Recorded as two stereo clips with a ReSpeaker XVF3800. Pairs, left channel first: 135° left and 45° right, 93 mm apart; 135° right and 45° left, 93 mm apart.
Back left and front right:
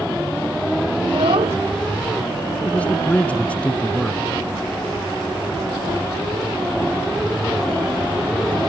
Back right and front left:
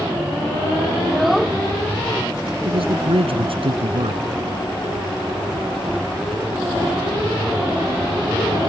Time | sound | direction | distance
1.0 | a child speaking | 45° right | ?
2.6 | a man speaking | 60° left | ?